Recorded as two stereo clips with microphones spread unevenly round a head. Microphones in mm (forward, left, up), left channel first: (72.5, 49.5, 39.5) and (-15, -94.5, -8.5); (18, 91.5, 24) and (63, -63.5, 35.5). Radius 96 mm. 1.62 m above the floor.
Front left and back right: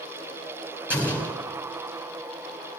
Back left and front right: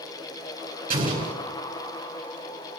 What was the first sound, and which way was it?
An explosion, 40° right.